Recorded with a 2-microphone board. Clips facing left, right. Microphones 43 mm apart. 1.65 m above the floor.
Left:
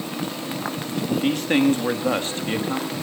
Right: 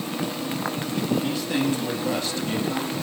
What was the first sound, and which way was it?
A man speaking, 50° left (ahead or behind).